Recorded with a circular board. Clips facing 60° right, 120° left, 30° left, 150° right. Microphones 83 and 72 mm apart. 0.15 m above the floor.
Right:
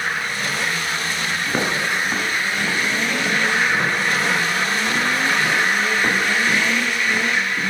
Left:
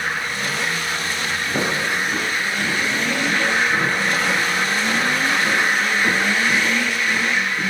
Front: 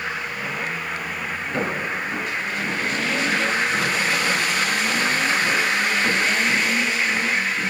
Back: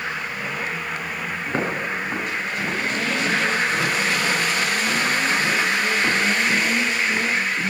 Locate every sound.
1.5 s footsteps: 90° right, 4 m; by 7.6 s 65° right, 6.5 m